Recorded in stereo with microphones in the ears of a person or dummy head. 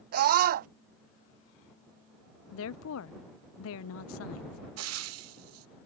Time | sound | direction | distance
0.1 | a scream | 45° right (ahead or behind) | ?
2.5 | a woman speaking | 70° left (ahead or behind) | ?
4.8 | frying | 80° right | ?